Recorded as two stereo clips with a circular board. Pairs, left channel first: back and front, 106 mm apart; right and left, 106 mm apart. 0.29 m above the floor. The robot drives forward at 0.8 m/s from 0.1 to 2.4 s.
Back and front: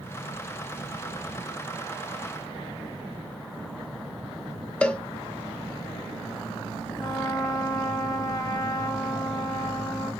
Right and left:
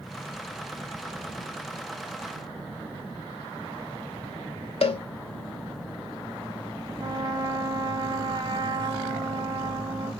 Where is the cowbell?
100° right, 0.7 m.